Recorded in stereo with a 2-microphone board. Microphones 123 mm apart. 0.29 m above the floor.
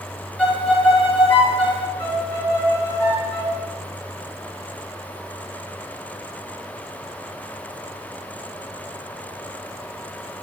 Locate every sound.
0.4 s a violin: 10° left (ahead or behind), 1.1 m
2.0 s a violin: 15° left (ahead or behind), 2 m